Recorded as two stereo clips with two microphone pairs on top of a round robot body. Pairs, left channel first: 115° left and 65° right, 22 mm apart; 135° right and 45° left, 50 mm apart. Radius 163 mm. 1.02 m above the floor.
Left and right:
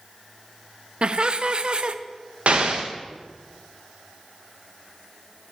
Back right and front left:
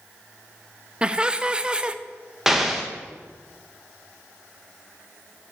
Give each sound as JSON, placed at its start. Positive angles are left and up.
{"t": 1.0, "sound": "laughter", "azimuth_deg": -20, "distance_m": 0.5}
{"t": 2.5, "sound": "an explosion", "azimuth_deg": -35, "distance_m": 0.6}